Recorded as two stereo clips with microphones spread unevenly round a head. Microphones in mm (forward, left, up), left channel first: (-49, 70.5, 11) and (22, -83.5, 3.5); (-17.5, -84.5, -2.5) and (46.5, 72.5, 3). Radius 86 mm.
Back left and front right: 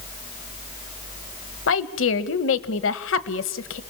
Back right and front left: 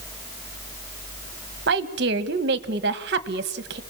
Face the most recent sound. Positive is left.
turn(degrees=100)